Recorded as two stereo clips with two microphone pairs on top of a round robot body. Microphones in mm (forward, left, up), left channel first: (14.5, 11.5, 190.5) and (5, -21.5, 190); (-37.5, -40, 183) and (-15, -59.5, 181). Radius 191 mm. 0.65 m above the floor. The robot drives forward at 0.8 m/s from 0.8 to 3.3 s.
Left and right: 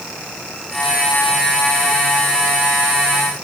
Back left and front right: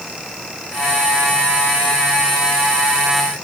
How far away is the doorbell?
I don't hear a doorbell.